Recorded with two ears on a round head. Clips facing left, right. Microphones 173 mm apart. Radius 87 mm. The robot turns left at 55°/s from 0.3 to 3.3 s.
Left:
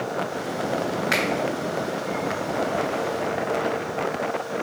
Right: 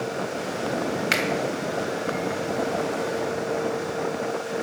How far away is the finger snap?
About 1.6 m.